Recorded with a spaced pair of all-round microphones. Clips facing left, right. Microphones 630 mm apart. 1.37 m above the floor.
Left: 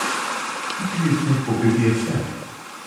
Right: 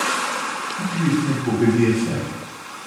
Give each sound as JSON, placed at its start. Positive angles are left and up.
{"t": 0.8, "sound": "a man speaking", "side_deg": -70, "distance_m": 1.4}